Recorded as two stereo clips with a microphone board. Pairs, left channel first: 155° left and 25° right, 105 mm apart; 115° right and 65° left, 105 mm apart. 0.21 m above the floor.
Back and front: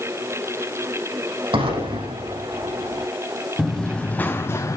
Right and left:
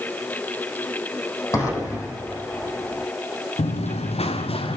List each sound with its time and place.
1.5 s an explosion: 55° right, 7 m
3.6 s running footsteps: 110° right, 1.5 m; by 4.8 s 145° right, 1.3 m